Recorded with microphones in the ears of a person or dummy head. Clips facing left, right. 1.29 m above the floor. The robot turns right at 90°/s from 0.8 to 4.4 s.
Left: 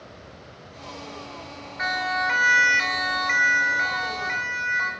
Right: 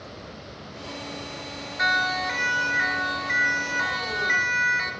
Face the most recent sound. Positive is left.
turn(degrees=-25)  # may be behind; listen again after turning